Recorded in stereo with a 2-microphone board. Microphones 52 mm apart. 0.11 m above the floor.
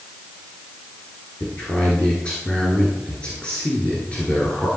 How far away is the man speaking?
About 2 m.